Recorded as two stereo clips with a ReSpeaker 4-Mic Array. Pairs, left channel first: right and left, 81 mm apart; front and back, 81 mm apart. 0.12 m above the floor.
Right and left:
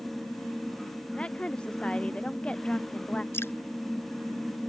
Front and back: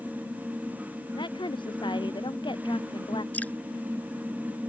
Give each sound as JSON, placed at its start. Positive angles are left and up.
{"t": 1.1, "sound": "a woman speaking", "azimuth_deg": -10}
{"t": 3.3, "sound": "dripping", "azimuth_deg": -55}